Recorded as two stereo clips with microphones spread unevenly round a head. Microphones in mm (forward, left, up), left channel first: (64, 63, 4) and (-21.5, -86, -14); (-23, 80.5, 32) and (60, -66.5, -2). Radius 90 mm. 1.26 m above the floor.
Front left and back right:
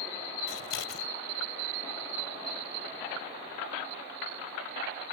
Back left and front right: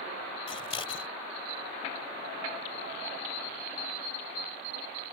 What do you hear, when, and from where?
0.5 s scissors: 60° left